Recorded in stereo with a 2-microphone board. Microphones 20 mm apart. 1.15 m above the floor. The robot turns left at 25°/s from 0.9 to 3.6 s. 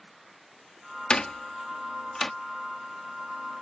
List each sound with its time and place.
1.1 s a door slam: 50° left (ahead or behind); by 2.3 s 20° left (ahead or behind)